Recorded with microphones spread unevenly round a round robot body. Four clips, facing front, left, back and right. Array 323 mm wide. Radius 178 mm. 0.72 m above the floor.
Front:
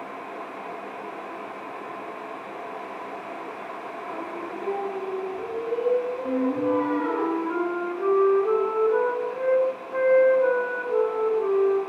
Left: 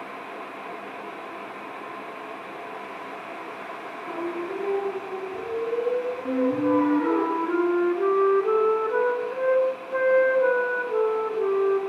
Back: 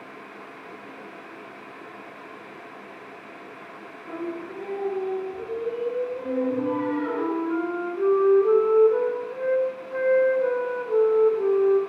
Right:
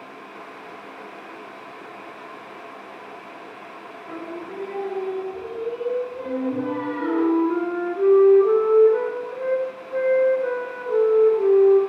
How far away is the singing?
About 9.5 m.